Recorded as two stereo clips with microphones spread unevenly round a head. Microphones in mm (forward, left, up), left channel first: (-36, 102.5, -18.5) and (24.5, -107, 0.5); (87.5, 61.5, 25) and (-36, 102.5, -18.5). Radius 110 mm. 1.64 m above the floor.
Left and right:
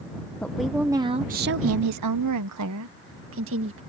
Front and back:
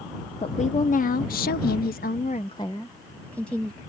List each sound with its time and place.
0.4 s a woman speaking: 20° left; by 3.8 s 105° right